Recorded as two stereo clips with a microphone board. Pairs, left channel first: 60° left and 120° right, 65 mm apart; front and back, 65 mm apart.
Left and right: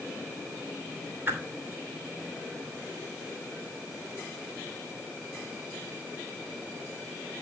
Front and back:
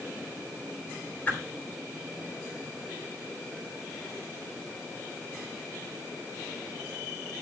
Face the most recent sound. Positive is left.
turn(degrees=-65)